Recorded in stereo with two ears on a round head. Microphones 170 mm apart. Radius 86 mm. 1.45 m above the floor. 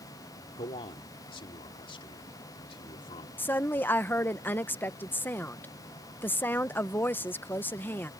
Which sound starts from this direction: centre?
A woman speaking, at 3.4 s.